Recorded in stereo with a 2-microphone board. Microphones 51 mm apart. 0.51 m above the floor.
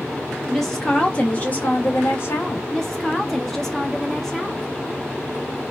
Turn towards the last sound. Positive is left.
turn(degrees=10)  # may be behind; listen again after turning